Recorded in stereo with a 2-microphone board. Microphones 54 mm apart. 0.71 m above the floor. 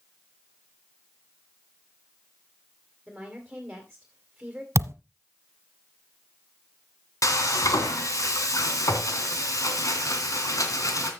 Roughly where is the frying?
Left.